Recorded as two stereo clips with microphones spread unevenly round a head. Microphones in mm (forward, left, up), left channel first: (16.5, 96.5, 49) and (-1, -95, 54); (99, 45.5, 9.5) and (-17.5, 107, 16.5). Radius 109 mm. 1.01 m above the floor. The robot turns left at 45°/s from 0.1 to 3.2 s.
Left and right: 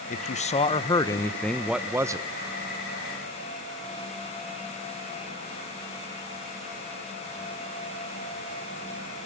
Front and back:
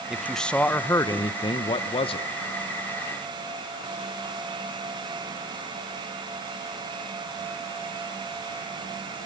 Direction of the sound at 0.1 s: 65° left.